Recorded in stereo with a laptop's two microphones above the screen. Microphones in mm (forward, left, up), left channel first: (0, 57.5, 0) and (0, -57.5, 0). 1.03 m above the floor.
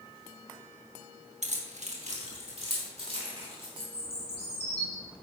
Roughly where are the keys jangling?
Right.